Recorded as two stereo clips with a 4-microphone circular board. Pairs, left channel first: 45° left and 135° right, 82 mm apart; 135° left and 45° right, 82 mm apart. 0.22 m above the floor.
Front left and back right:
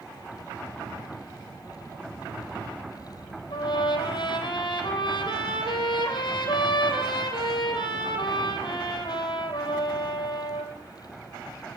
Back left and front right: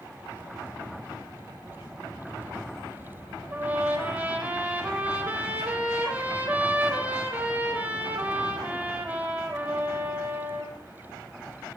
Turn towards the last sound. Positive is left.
turn(degrees=25)